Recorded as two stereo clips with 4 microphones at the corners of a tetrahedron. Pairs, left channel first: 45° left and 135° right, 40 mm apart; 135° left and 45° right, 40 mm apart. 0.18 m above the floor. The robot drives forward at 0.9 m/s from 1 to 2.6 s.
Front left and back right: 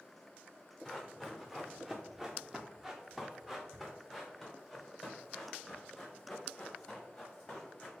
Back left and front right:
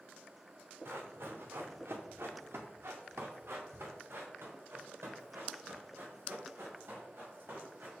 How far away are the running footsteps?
About 1.7 m.